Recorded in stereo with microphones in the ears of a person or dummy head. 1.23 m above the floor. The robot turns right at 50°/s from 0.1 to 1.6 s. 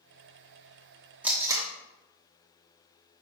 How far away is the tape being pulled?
About 1.2 m.